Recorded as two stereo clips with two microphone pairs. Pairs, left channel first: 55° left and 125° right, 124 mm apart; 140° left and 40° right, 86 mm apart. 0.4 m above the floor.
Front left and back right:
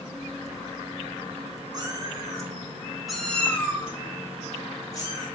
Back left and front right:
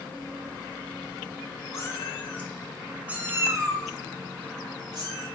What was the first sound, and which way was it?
A cat meowing, straight behind.